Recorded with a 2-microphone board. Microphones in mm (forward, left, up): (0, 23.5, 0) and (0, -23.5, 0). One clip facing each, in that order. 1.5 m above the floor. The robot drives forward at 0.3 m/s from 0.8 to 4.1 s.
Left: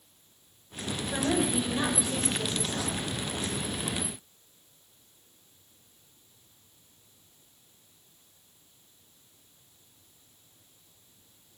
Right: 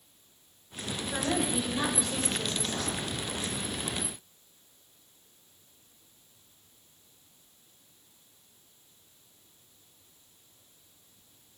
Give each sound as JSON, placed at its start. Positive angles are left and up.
{"t": 1.1, "sound": "a woman speaking", "side_deg": 5, "distance_m": 6.0}